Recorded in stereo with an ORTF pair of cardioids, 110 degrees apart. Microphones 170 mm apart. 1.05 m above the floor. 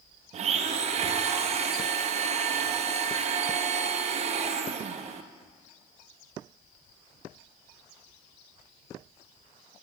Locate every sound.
0.3 s a blender: 45° right, 0.6 m